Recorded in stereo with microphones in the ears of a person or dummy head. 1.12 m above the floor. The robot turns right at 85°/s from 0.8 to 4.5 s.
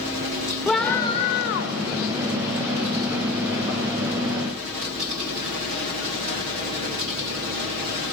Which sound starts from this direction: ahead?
A scream, at 0.7 s.